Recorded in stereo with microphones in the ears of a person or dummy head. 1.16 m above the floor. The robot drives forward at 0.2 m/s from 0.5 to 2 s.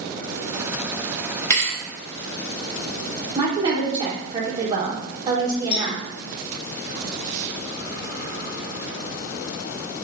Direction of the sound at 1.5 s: 15° left (ahead or behind).